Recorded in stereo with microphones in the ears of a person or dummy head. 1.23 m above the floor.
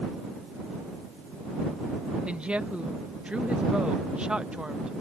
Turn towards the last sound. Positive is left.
turn(degrees=0)  # may be behind; listen again after turning